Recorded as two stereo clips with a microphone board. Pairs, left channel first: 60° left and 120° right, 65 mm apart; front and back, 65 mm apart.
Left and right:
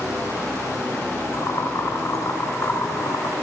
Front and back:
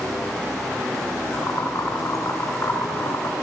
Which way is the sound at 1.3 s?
35° left.